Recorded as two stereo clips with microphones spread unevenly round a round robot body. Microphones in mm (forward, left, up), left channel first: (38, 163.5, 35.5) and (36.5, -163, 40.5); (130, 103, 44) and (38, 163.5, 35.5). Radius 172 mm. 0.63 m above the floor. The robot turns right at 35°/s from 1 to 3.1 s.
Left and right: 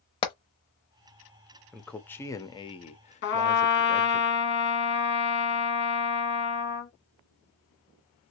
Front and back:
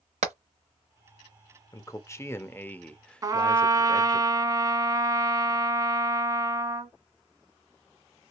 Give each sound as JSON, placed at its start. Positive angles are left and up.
{"t": 0.2, "sound": "hammering", "azimuth_deg": 165, "distance_m": 0.7}
{"t": 1.7, "sound": "a man speaking", "azimuth_deg": 0, "distance_m": 0.7}
{"t": 3.2, "sound": "a trumpet", "azimuth_deg": 115, "distance_m": 1.0}